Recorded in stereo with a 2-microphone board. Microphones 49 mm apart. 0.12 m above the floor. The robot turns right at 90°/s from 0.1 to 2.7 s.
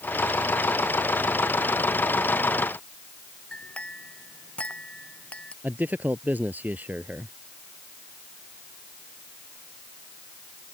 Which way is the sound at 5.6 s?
35° right (ahead or behind).